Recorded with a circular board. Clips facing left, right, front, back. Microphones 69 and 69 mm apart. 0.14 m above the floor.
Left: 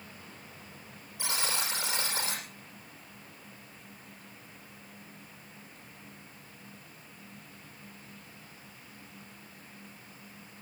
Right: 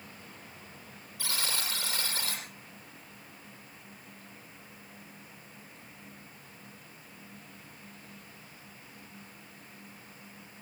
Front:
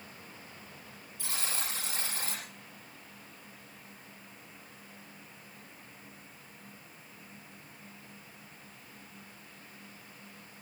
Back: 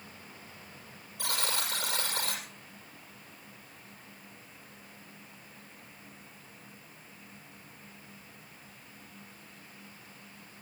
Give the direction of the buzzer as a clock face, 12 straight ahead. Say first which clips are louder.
Left 2 dB, back 5 dB; 7 o'clock.